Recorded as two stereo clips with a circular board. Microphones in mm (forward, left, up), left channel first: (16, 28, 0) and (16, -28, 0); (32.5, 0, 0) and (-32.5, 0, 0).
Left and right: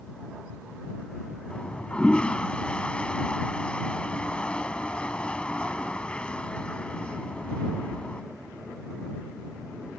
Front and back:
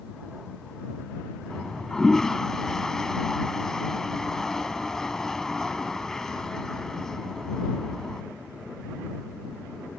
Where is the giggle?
I don't hear a giggle.